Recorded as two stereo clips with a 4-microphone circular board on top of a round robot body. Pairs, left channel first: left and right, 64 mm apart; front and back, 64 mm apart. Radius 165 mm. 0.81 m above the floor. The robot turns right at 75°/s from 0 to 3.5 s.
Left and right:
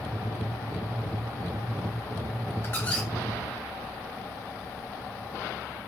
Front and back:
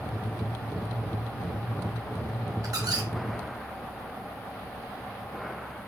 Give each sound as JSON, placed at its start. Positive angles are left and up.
{"t": 2.6, "sound": "a squeak", "azimuth_deg": 145, "distance_m": 1.2}